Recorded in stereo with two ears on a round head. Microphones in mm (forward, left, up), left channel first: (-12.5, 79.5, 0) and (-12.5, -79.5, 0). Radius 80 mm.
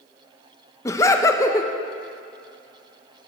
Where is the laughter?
15° left (ahead or behind), 0.6 m.